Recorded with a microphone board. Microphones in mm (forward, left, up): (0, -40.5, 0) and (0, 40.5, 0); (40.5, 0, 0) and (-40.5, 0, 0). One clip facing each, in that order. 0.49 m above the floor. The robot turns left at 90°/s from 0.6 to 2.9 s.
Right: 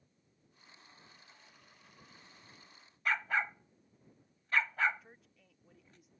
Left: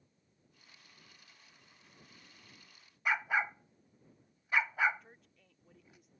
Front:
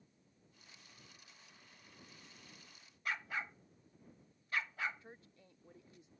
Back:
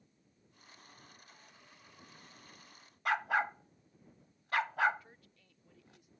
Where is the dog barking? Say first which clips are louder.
Left 1 dB, back 10 dB; 170° left.